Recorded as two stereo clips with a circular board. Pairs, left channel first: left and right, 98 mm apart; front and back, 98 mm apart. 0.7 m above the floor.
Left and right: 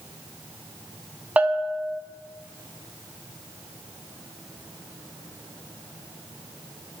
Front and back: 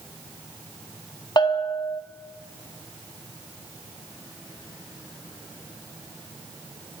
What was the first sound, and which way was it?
A bell, 20° right.